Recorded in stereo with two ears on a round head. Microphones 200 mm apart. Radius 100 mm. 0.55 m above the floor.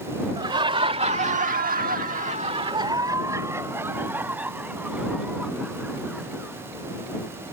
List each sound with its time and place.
0.4 s laughter: 20° right (ahead or behind); by 6.6 s 5° right (ahead or behind)